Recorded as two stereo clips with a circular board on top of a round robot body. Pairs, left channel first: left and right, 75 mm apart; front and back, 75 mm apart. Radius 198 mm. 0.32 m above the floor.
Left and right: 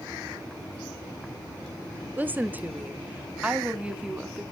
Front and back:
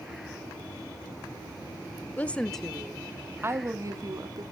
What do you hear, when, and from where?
2.2 s a woman speaking: 45° right, 0.9 m; by 4.4 s 170° right, 1.2 m